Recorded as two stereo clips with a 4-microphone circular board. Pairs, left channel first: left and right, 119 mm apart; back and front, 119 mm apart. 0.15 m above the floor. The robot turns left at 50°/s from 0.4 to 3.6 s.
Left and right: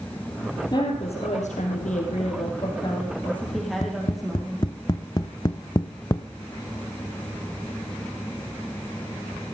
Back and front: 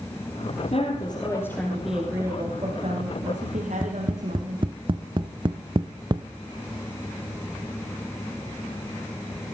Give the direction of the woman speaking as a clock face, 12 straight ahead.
7 o'clock.